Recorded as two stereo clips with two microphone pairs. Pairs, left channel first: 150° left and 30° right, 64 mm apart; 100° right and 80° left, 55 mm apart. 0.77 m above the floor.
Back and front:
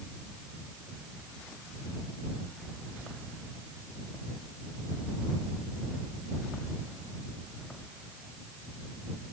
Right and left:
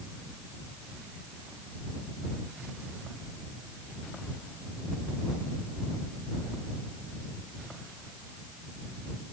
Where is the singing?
No singing in this recording.